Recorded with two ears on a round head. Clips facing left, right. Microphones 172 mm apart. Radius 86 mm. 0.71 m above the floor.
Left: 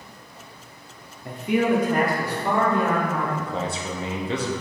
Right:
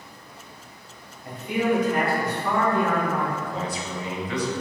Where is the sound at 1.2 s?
60° left (ahead or behind), 0.8 m; by 3.3 s 15° left (ahead or behind), 1.8 m.